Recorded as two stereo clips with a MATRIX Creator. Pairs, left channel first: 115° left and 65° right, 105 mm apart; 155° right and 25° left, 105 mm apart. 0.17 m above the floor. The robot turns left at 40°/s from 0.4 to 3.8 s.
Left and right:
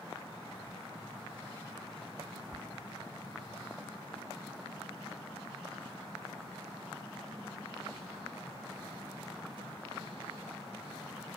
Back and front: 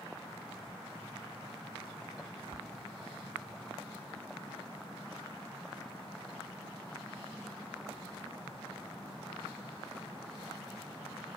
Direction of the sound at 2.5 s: 145° right.